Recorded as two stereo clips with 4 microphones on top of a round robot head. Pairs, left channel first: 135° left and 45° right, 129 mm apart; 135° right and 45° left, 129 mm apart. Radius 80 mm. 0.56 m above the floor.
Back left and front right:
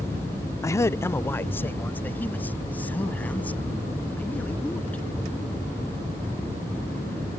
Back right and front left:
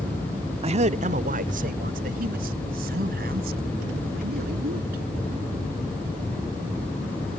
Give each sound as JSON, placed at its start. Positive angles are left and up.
{"t": 0.6, "sound": "a man speaking", "azimuth_deg": 70}